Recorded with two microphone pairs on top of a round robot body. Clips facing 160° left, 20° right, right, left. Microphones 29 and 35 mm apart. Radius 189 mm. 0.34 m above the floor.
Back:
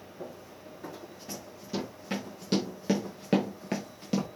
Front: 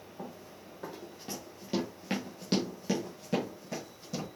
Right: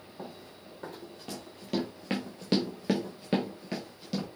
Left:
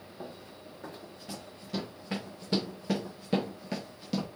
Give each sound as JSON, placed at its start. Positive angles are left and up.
{"t": 0.2, "sound": "running footsteps", "azimuth_deg": -50, "distance_m": 1.5}